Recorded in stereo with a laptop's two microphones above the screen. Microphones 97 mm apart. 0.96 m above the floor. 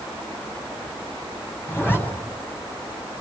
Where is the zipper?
20° left (ahead or behind), 8.5 m.